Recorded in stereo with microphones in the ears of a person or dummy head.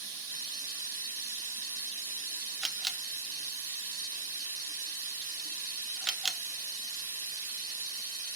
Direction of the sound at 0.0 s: 15° right (ahead or behind).